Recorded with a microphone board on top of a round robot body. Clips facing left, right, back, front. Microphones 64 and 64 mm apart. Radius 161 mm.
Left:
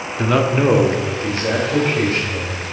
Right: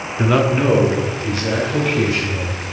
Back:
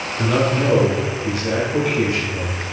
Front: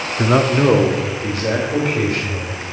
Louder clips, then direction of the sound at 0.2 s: Even, front 4 dB; 20° right.